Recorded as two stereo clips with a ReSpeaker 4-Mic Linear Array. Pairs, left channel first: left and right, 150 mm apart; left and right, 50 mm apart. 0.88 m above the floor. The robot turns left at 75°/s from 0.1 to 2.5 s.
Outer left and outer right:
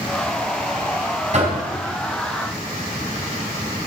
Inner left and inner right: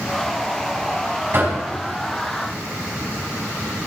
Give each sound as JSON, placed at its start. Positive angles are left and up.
{"t": 1.3, "sound": "knocking", "side_deg": -45, "distance_m": 4.5}